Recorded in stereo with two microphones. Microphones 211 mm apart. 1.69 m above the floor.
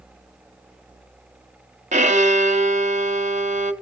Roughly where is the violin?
Right.